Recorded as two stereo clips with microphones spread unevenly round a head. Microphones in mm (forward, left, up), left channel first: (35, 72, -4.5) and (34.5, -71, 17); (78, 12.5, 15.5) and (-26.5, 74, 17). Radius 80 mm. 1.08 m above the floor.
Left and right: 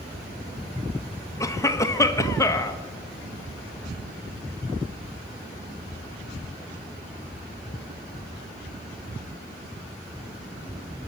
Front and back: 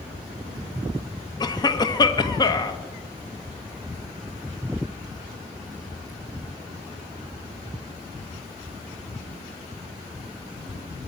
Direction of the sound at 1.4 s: 25° left.